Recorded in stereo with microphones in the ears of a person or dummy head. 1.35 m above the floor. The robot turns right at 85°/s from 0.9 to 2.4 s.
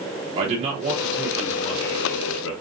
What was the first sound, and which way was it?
A man speaking, 30° right.